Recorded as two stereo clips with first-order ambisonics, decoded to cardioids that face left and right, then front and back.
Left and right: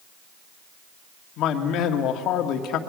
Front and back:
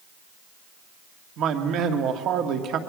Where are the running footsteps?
I don't hear running footsteps.